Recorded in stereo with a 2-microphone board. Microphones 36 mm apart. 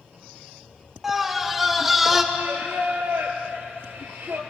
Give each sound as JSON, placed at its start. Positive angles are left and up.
{"t": 1.0, "sound": "a scream", "side_deg": -5, "distance_m": 3.0}
{"t": 2.3, "sound": "singing", "side_deg": -85, "distance_m": 3.5}